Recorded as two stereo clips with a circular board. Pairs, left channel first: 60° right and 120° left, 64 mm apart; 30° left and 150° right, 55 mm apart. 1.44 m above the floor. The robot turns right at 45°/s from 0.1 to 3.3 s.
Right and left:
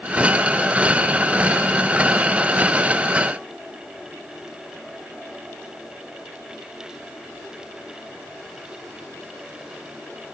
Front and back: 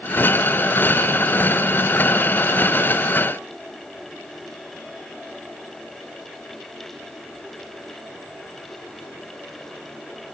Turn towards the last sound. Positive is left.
No sound to turn to.